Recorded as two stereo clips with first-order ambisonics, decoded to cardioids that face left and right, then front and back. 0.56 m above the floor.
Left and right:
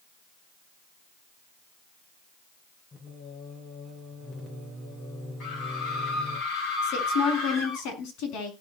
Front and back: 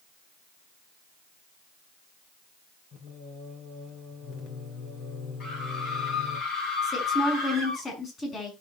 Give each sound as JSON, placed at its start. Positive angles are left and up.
{"t": 2.9, "sound": "singing", "azimuth_deg": 30, "distance_m": 2.5}
{"t": 5.4, "sound": "a scream", "azimuth_deg": 45, "distance_m": 8.0}
{"t": 6.8, "sound": "a woman speaking", "azimuth_deg": 60, "distance_m": 6.0}